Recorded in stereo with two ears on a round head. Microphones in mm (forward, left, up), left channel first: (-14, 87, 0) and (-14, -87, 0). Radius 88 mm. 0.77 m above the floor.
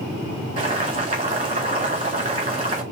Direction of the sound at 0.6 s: 30° right (ahead or behind).